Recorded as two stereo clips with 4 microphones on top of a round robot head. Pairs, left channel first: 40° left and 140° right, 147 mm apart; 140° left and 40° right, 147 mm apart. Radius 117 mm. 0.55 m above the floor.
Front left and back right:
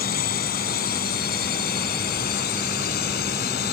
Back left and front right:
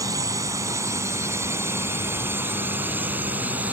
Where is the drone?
25° left; by 3.7 s 40° left.